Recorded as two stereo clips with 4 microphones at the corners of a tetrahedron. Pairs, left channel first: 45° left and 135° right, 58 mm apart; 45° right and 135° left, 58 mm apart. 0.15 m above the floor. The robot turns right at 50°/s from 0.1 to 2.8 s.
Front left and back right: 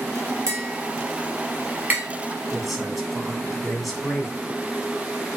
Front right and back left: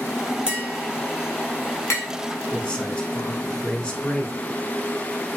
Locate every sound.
0.5 s tapping: 150° right, 1.6 m; by 2.0 s 75° right, 1.6 m
2.5 s a man speaking: 55° right, 1.0 m; by 4.4 s 40° right, 1.0 m